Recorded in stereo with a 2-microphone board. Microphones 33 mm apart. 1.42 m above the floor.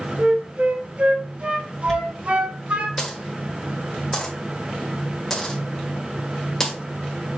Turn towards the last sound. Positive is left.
turn(degrees=20)  # may be behind; listen again after turning